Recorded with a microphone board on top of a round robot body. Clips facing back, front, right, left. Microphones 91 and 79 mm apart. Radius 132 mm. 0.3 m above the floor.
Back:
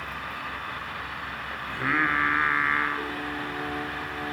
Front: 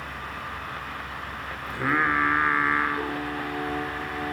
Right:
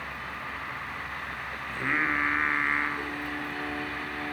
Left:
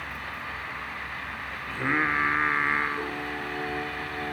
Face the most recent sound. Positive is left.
turn(degrees=55)